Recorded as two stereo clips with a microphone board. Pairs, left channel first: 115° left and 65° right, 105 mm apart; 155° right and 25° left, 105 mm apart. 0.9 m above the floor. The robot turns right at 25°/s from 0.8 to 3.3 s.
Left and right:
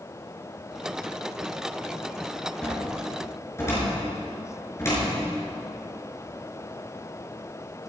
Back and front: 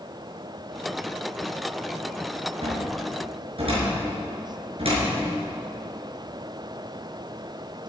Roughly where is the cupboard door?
Ahead left.